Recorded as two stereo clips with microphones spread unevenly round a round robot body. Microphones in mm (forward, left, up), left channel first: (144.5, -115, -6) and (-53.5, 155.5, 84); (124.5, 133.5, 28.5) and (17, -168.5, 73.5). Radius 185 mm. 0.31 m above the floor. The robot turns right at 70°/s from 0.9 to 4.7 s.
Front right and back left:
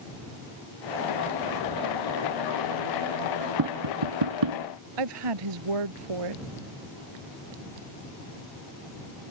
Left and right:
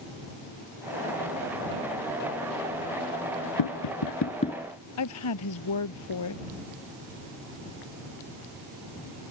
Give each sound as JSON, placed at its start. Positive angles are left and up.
{"t": 3.6, "sound": "tapping", "azimuth_deg": 85}
{"t": 5.0, "sound": "a woman speaking", "azimuth_deg": 120}